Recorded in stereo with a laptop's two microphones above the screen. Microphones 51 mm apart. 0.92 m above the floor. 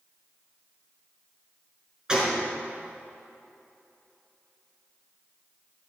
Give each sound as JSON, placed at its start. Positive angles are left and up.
{"t": 2.1, "sound": "a gunshot", "side_deg": -20, "distance_m": 3.0}